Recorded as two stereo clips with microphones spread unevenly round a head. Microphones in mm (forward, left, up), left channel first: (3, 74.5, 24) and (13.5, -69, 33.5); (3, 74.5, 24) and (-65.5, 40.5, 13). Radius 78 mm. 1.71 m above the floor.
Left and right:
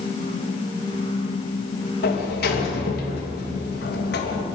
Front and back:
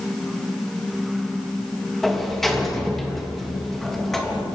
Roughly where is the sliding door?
Behind left.